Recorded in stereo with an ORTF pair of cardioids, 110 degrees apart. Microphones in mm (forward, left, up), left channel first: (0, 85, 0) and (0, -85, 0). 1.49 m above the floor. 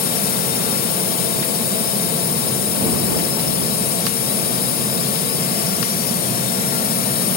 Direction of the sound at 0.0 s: 60° left.